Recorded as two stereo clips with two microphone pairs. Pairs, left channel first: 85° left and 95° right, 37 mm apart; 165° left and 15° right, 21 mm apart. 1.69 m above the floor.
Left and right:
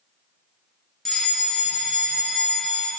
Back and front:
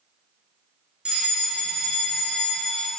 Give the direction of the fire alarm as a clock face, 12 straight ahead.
12 o'clock.